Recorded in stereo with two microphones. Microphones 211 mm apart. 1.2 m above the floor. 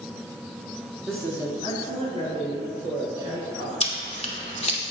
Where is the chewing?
30° left (ahead or behind), 0.9 m.